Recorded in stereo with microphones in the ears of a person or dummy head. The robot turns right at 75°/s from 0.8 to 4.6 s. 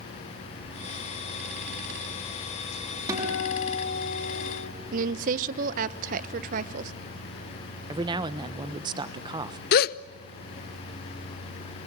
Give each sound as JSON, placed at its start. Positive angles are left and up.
{"t": 3.1, "sound": "a guitar", "azimuth_deg": -25, "distance_m": 5.0}
{"t": 4.9, "sound": "a woman speaking", "side_deg": -45, "distance_m": 0.9}
{"t": 7.9, "sound": "a man speaking", "side_deg": -25, "distance_m": 1.3}
{"t": 9.7, "sound": "a gasp", "side_deg": 50, "distance_m": 0.6}